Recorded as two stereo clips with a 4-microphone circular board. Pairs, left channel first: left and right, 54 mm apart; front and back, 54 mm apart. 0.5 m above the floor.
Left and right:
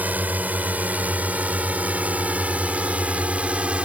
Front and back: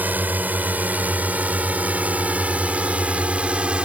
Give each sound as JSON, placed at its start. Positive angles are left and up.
{"t": 0.0, "sound": "a drone", "azimuth_deg": -135}